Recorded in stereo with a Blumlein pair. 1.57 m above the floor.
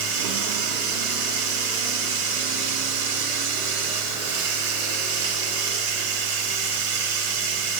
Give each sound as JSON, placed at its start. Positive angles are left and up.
{"t": 0.0, "sound": "running water", "azimuth_deg": -55, "distance_m": 4.5}